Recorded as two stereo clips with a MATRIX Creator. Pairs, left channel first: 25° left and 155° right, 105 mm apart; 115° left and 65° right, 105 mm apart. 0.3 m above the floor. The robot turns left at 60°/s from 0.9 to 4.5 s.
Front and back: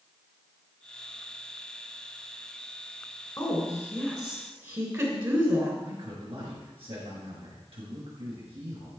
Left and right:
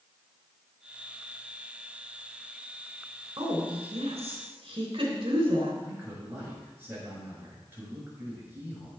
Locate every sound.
3.4 s a woman speaking: 35° right, 3 m; by 5.7 s 105° right, 3 m
5.8 s a man speaking: 135° right, 5.5 m